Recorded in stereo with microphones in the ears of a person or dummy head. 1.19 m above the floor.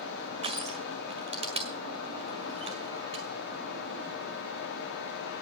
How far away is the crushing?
About 1.9 m.